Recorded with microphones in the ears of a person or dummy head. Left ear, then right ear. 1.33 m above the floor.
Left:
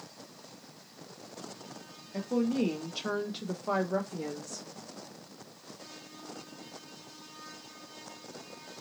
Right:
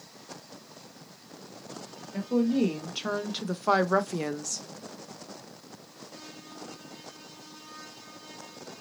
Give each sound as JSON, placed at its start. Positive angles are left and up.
{"t": 2.1, "sound": "a woman speaking", "side_deg": 10, "distance_m": 1.1}